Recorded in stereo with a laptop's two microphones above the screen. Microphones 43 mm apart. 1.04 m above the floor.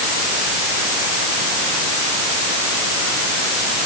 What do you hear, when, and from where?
Only background noise.